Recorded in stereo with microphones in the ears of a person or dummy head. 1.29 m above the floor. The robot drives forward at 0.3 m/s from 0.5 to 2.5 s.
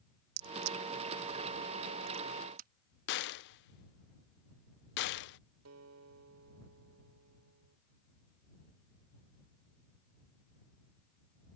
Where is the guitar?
85° right.